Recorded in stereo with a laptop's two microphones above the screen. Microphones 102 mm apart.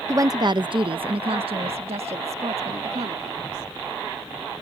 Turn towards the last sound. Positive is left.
turn(degrees=-80)